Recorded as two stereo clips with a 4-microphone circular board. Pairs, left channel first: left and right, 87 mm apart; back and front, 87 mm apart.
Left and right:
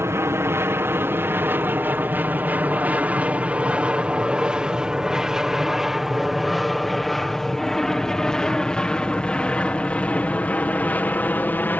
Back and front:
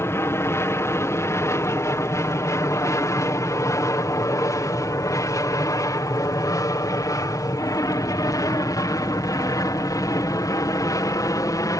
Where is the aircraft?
135° right; by 11.8 s 150° left.